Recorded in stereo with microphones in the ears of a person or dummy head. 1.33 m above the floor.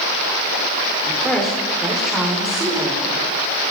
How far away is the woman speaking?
About 5 m.